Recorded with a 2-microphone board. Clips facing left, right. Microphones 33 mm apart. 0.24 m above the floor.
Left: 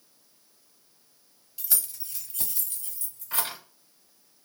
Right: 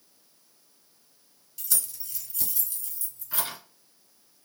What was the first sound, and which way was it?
Keys jangling, 20° left (ahead or behind).